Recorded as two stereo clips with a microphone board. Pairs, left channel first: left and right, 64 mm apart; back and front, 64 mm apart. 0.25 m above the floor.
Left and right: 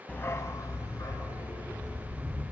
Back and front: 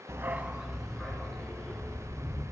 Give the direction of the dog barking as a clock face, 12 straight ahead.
11 o'clock.